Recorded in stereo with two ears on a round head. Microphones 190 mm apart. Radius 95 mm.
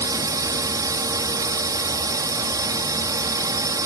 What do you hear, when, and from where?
0.0 s a drone: 15° right (ahead or behind)